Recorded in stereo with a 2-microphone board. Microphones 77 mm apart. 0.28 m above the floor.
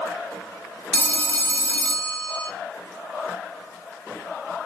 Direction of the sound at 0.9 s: 25° left (ahead or behind).